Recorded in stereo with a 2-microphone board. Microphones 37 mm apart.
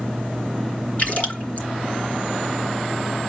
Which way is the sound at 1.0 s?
45° left (ahead or behind).